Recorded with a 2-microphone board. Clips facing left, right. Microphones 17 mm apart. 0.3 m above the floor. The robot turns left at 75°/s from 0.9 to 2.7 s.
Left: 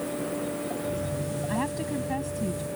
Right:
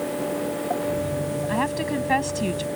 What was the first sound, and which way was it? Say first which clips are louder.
A woman speaking: right 5 dB; 20° right.